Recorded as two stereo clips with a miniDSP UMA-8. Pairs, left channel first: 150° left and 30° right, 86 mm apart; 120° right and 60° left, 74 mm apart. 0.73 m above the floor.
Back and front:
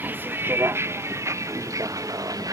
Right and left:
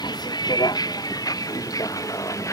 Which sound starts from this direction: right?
A vehicle, at 0.0 s.